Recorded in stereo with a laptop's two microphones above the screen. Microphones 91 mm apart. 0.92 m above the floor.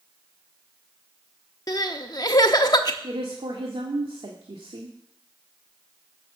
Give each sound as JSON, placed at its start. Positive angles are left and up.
{"t": 1.7, "sound": "crying", "side_deg": 45, "distance_m": 0.9}
{"t": 3.0, "sound": "a woman speaking", "side_deg": -80, "distance_m": 1.8}